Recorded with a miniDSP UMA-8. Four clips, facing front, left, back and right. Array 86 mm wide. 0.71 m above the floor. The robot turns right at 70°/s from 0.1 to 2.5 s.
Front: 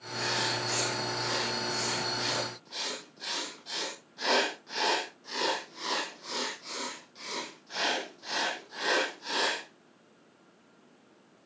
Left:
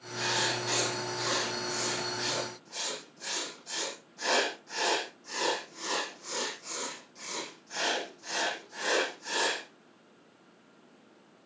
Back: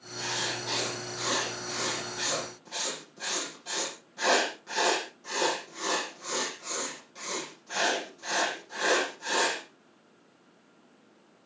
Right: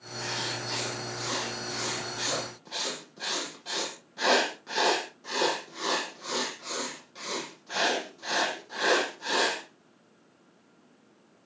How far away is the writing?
About 6.5 m.